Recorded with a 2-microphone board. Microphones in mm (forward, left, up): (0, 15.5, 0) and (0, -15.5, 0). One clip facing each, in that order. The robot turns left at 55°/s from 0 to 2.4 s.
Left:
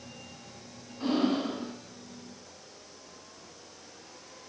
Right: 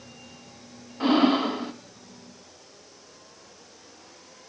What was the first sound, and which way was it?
Breathing, 55° right.